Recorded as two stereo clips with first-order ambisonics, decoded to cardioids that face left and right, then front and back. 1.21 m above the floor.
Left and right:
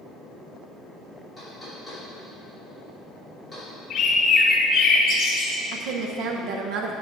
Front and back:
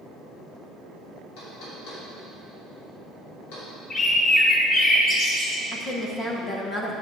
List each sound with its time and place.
1.4 s knocking: 5° left, 3 m
3.9 s a bird: 55° left, 1.1 m
5.7 s a woman speaking: 65° right, 0.8 m